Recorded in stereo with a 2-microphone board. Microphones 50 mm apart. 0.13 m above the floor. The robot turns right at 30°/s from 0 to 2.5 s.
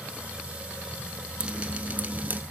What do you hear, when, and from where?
1.4 s dripping: 145° right, 0.5 m; by 2.4 s 115° right, 0.5 m